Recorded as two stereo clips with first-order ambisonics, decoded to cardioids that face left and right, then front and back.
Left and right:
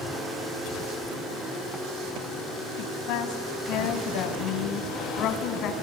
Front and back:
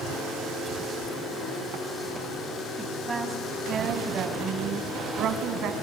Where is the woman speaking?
100° left, 3.5 m; by 5.7 s 135° left, 4 m.